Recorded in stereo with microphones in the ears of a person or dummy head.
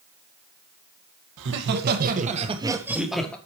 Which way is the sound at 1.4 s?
60° right (ahead or behind).